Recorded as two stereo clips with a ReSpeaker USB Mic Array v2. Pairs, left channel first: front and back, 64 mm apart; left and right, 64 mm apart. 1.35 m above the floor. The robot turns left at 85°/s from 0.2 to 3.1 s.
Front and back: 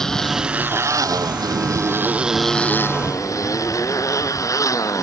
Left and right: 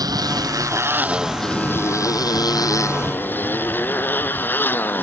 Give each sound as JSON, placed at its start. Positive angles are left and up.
{"t": 0.0, "sound": "a motorcycle", "azimuth_deg": -80}